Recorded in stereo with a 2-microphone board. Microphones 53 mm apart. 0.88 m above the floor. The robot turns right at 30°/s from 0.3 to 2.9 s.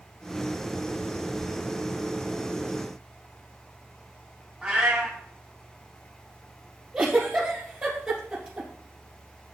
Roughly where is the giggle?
Centre.